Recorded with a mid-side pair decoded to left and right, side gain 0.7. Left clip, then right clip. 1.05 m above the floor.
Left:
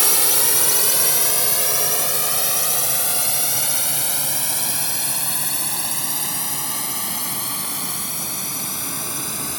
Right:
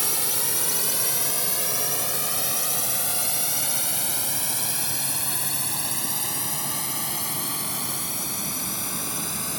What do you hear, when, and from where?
0.0 s a drone: 35° left; by 9.6 s 10° left